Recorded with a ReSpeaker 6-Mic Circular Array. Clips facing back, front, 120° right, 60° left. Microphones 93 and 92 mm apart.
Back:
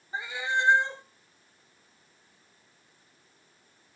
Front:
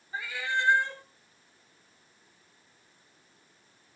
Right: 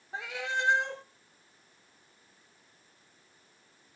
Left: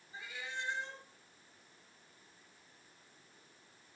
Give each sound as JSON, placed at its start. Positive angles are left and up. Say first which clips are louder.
{"t": 0.1, "sound": "a cat meowing", "louder": "back 2 dB, right 10 dB", "azimuth_deg": -110, "distance_m": 1.0}